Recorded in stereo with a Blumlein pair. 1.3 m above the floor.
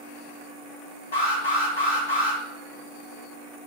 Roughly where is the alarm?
Ahead left.